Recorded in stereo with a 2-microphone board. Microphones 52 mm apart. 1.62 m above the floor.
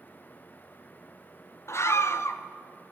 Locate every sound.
1.7 s a scream: 55° left (ahead or behind), 0.9 m